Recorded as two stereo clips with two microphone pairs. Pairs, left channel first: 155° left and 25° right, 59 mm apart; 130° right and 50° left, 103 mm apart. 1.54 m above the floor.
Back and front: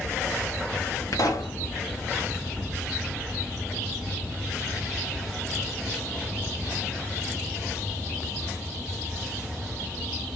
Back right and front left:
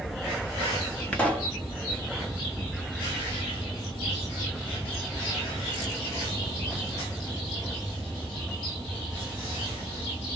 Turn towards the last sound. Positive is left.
turn(degrees=150)